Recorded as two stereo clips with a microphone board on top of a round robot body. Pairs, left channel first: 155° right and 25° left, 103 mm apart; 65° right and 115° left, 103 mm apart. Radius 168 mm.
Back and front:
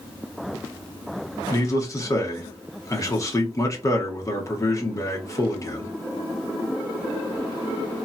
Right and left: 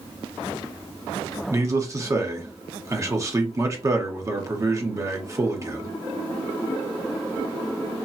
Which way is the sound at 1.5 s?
160° left.